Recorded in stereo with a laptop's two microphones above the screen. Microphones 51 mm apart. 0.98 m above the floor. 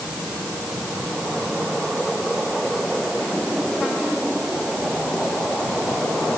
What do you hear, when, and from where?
Only background noise.